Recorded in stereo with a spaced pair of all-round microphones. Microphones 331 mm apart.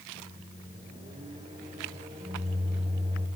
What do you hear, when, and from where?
0.1 s a microwave: 20° right (ahead or behind), 5 m